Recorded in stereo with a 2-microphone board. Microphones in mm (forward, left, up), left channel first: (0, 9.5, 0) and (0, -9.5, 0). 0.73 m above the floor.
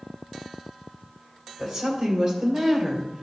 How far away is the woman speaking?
About 3 m.